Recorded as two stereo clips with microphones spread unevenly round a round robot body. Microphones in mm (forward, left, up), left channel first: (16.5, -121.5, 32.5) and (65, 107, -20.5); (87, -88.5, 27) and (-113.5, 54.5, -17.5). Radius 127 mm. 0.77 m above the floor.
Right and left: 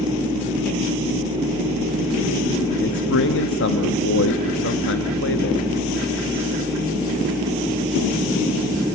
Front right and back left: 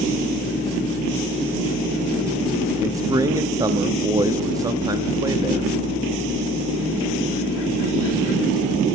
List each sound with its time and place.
2.8 s a man speaking: 150° right, 1.1 m